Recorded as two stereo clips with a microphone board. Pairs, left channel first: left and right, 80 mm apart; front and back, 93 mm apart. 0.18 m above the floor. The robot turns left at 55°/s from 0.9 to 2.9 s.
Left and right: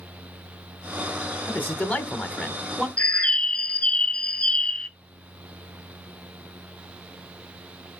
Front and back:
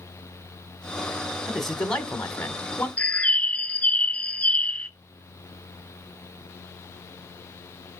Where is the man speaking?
90° left, 1.0 m; by 2.9 s 15° left, 1.0 m.